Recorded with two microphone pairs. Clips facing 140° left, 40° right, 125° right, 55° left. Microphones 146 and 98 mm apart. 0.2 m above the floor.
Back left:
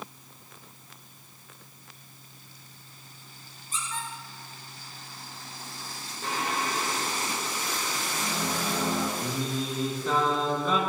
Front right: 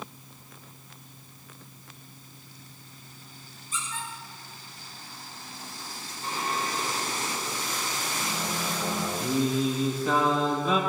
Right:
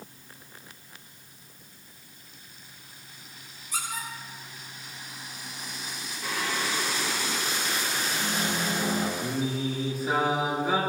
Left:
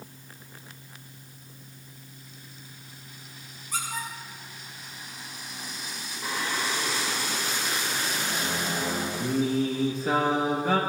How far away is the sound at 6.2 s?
About 5.5 m.